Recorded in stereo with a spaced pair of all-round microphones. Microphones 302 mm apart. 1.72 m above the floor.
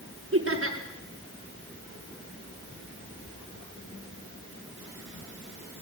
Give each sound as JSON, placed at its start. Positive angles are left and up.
{"t": 0.3, "sound": "laughter", "side_deg": -45, "distance_m": 7.0}